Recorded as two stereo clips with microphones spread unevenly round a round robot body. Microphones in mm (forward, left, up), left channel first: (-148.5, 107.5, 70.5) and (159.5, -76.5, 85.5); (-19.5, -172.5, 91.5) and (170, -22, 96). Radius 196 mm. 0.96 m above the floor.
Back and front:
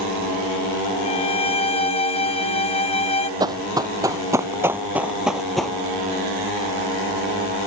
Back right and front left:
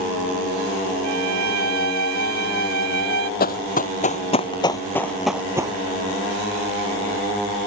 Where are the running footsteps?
105° right; by 5.8 s 55° left.